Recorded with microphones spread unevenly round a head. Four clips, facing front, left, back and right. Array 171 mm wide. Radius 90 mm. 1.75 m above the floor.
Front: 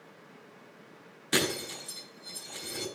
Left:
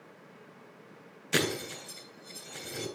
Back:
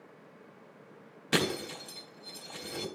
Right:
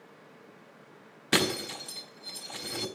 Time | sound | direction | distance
1.3 | breaking glass | 95° right | 4 m